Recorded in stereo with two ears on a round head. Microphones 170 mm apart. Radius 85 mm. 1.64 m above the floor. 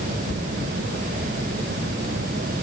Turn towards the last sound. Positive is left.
No sound to turn to.